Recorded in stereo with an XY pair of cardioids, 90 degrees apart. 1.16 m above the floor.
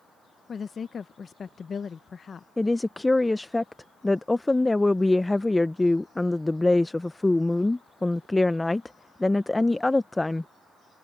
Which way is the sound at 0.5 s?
45° left.